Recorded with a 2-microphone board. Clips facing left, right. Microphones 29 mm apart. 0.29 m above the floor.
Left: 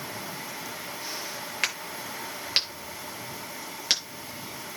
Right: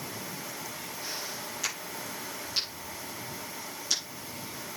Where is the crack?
60° left (ahead or behind), 7 m.